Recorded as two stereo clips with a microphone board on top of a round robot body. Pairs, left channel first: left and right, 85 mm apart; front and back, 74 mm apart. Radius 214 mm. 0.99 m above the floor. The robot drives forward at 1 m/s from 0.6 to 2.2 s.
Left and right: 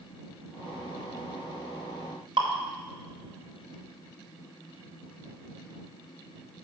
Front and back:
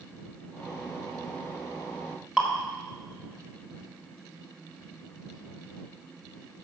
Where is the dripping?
100° right, 1.7 m.